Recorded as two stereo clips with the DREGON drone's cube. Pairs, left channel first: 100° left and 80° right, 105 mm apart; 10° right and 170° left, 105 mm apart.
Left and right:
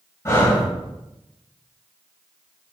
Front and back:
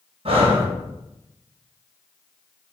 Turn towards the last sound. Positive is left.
turn(degrees=160)